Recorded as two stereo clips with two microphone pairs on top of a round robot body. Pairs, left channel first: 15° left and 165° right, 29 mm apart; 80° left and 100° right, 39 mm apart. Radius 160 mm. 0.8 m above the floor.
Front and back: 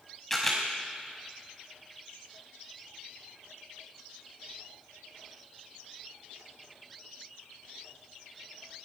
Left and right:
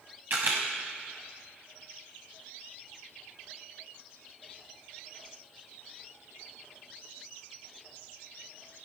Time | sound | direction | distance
0.3 | a camera shutter | 60° right | 1.0 m